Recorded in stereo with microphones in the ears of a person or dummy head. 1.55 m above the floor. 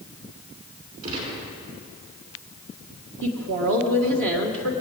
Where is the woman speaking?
70° right (ahead or behind), 1.6 m.